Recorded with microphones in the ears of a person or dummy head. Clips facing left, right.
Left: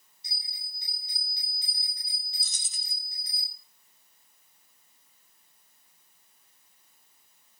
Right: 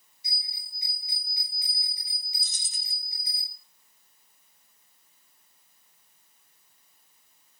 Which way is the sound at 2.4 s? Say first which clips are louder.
Right 1 dB; 55° left (ahead or behind).